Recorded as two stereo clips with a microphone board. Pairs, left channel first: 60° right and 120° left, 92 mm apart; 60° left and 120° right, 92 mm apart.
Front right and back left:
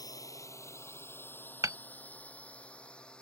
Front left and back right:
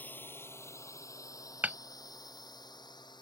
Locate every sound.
0.0 s a drone: 10° right; by 3.2 s 20° left
1.6 s hammering: 170° left